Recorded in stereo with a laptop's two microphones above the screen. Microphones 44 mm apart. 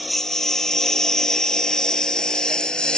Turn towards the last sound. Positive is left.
turn(degrees=20)  # may be behind; listen again after turning